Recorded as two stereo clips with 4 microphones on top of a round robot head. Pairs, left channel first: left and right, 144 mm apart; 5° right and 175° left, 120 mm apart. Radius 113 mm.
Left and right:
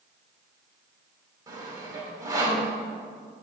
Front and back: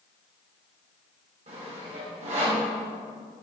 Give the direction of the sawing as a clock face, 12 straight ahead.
5 o'clock.